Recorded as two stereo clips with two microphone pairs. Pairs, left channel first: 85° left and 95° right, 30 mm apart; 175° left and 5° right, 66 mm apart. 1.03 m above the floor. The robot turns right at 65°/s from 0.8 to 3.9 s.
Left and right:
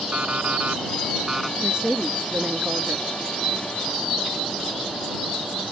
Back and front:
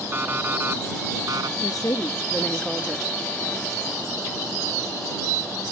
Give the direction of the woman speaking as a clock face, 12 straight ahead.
6 o'clock.